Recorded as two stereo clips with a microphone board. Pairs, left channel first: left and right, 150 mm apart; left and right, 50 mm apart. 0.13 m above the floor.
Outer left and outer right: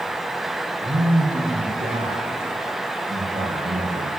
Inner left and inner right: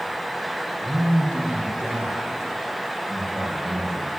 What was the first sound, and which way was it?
A man speaking, 45° right (ahead or behind).